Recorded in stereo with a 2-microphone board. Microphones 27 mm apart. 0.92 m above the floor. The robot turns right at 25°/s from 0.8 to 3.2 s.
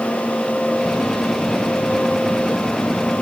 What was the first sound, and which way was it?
Only background noise.